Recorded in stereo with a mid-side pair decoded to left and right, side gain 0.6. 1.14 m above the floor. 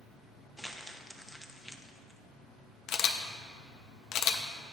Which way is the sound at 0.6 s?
5° left.